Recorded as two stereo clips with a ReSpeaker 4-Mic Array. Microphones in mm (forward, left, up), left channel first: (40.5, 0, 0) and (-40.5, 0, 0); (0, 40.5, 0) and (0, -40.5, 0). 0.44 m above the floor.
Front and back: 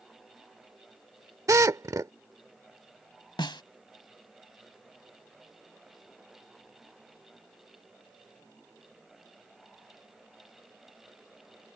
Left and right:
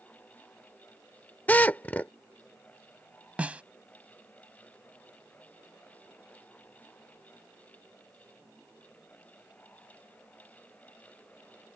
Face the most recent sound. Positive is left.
turn(degrees=-15)